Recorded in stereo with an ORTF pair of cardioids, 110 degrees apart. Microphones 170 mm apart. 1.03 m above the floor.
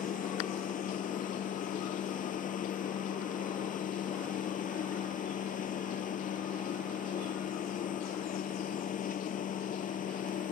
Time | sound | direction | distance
0.0 | a machine running | 50° left | ?